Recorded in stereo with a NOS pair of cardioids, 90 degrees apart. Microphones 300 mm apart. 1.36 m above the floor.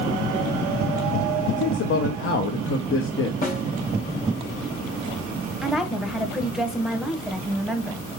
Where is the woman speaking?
Straight ahead, 1.0 m.